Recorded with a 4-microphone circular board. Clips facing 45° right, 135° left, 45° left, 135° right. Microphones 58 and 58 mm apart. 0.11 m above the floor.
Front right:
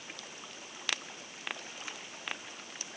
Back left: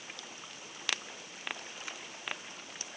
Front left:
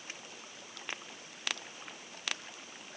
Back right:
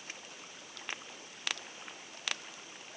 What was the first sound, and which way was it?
Only background noise.